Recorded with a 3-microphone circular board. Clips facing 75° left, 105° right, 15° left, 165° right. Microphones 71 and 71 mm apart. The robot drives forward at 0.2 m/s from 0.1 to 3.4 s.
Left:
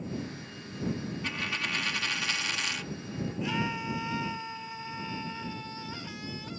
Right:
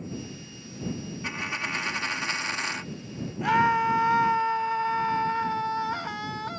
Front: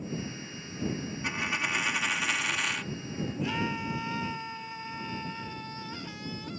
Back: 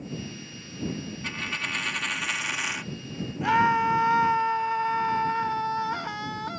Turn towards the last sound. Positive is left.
turn(degrees=-135)